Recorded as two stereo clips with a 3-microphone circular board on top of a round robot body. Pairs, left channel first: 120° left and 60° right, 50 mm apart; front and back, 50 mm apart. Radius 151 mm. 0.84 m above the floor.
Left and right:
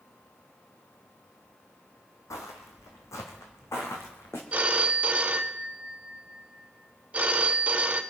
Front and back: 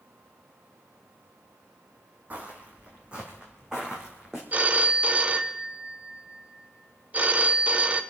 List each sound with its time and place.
2.3 s footsteps: 120° left, 2 m; by 4.4 s 100° left, 3 m
4.5 s a phone ringing: 120° right, 1.3 m